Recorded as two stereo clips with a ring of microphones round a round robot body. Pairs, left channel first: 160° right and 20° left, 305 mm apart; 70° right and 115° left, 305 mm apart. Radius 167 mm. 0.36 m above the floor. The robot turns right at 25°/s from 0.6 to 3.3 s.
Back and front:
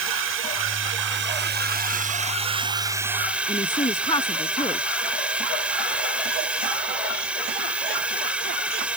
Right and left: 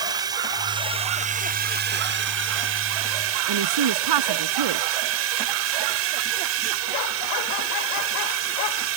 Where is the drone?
40° left; by 9.0 s 105° left.